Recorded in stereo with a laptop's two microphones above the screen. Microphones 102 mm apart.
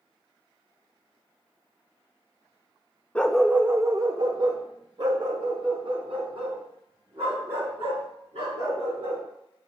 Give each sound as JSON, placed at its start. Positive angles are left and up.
{"t": 3.1, "sound": "a dog barking", "side_deg": 15, "distance_m": 0.6}